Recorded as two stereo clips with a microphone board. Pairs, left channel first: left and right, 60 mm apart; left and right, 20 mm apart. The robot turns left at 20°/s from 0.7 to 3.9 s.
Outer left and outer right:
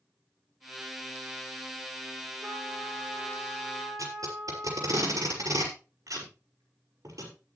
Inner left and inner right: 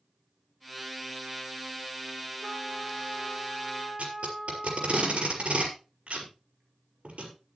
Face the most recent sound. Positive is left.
turn(degrees=-75)  # may be behind; listen again after turning